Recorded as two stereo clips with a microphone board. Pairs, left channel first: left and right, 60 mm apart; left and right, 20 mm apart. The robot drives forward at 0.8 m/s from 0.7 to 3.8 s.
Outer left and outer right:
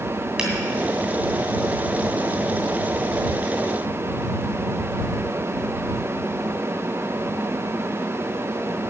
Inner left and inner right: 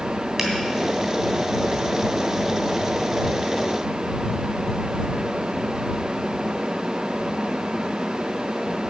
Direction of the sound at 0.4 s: 15° right (ahead or behind).